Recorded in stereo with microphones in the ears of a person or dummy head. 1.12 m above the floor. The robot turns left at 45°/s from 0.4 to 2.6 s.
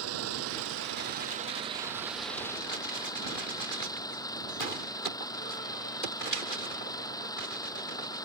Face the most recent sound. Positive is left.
turn(degrees=165)